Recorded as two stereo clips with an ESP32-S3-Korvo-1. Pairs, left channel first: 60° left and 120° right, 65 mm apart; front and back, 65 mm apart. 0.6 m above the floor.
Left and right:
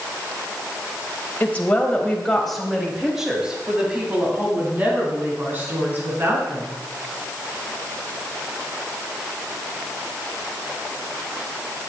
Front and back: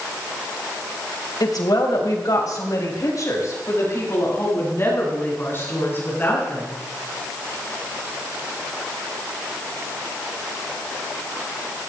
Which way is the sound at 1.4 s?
5° right.